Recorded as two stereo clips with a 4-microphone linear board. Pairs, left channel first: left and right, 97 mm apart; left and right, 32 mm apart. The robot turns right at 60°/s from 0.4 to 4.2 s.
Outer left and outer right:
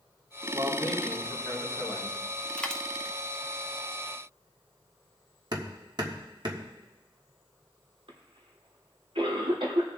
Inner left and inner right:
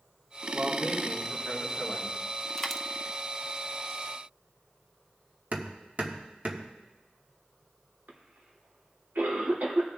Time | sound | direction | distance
0.5 | a man speaking | 30° right | 4 m
2.6 | a dropped coin | 10° left (ahead or behind) | 0.7 m
5.5 | hammering | 50° right (ahead or behind) | 1.4 m
8.1 | a cough | 80° right | 2.5 m